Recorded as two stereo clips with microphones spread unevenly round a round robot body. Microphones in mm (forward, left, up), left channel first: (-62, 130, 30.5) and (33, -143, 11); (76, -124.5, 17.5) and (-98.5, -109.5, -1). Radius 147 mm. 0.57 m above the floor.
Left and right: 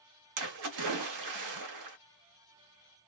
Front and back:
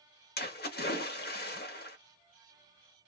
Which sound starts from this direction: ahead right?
A splash, at 0.4 s.